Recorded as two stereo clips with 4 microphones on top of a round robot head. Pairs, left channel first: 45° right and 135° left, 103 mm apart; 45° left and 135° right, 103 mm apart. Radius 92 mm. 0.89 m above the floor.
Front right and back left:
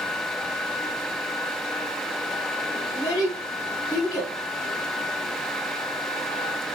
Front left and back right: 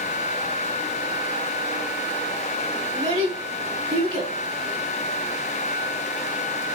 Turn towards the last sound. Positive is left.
turn(degrees=-105)